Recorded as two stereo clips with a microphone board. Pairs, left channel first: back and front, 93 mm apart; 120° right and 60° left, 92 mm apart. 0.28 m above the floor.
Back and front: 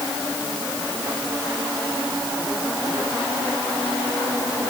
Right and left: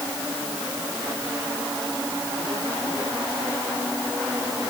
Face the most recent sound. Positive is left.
No sound to turn to.